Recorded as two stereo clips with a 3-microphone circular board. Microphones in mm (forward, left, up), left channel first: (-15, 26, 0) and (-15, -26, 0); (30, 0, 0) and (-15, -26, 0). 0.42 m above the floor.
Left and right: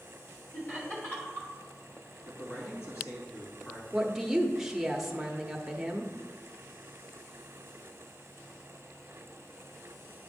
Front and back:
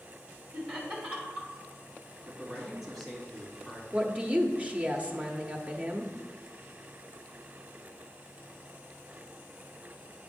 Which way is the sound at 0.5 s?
140° left.